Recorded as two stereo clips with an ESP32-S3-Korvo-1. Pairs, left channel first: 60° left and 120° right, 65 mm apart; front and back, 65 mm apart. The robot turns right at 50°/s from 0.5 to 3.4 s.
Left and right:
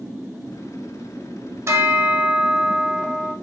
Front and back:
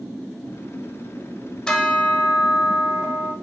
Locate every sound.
1.7 s a bell: 80° right, 0.6 m; by 3.3 s 5° left, 0.6 m